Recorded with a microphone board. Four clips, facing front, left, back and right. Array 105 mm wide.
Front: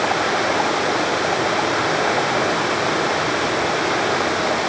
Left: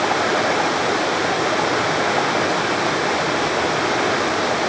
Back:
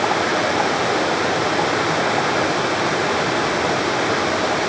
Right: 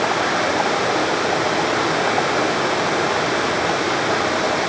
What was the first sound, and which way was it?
Only background noise.